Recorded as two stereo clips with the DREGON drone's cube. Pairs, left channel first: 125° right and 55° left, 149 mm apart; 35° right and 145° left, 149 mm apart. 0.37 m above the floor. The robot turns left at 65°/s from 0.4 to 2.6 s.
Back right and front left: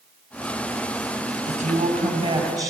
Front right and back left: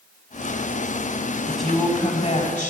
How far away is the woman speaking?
About 1.9 m.